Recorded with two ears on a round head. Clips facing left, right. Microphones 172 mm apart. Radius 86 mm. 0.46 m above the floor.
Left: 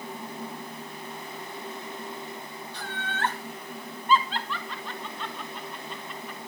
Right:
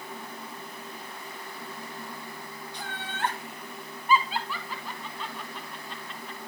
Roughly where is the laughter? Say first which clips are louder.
Left 3 dB; centre.